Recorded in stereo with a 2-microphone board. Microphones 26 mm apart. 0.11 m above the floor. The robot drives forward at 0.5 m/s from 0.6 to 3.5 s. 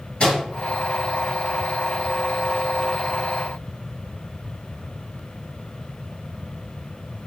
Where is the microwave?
40° left (ahead or behind), 1.7 m.